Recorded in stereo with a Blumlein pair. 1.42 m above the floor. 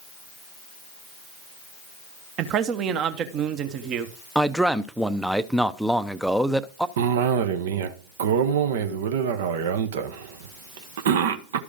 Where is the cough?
55° right, 0.9 m.